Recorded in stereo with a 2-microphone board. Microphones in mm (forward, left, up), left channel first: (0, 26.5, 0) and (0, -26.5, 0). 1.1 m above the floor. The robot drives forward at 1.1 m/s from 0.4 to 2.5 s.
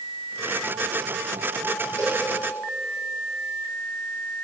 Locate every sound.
2.0 s a cowbell: 60° right (ahead or behind), 9 m; by 2.2 s 55° right (ahead or behind), 9 m